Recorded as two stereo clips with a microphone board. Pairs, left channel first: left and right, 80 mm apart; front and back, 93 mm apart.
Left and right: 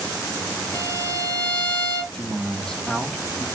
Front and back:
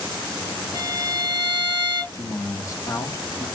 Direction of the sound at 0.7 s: 35° left.